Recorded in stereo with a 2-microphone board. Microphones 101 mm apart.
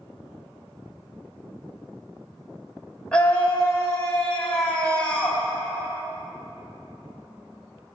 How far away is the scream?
About 1.5 m.